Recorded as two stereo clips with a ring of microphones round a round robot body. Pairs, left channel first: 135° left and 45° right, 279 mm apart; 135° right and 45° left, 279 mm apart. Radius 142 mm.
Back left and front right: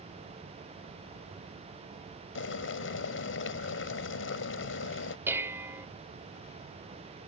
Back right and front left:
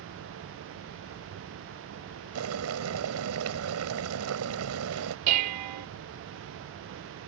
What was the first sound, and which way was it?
Boiling, 85° left.